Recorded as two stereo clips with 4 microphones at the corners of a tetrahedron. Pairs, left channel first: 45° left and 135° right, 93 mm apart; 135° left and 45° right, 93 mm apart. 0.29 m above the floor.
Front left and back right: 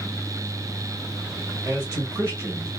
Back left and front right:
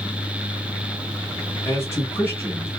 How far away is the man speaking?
About 1.5 m.